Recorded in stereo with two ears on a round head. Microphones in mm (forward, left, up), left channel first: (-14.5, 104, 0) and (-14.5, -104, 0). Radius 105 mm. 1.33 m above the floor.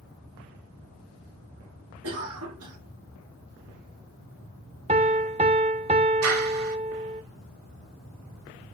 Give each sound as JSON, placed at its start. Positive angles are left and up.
{"t": 2.0, "sound": "a cough", "side_deg": -65, "distance_m": 3.0}
{"t": 4.9, "sound": "a piano", "side_deg": -30, "distance_m": 0.7}
{"t": 6.2, "sound": "a clap", "side_deg": -75, "distance_m": 2.5}